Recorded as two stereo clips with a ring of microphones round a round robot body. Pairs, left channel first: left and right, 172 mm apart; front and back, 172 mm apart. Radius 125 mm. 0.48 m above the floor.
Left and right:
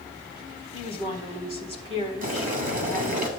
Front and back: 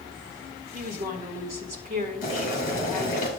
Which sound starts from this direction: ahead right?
Boiling, at 2.2 s.